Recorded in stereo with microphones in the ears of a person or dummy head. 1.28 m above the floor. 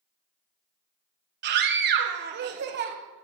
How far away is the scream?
About 1.1 m.